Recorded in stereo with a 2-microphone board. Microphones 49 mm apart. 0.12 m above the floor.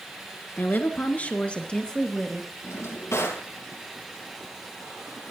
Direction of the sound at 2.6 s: 65° left (ahead or behind).